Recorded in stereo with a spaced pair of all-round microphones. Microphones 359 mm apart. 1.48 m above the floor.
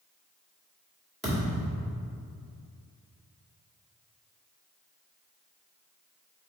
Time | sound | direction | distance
1.2 | a thud | centre (ahead or behind) | 1.7 m